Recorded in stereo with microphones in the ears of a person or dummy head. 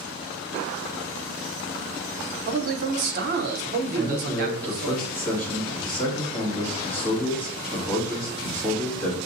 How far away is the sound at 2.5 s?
About 0.7 m.